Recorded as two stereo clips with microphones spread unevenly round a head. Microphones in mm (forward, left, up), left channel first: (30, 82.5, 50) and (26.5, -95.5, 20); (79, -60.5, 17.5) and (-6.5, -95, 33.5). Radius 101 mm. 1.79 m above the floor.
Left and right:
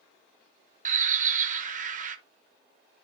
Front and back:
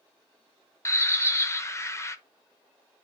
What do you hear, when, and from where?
0.8 s a bird: 40° right, 0.8 m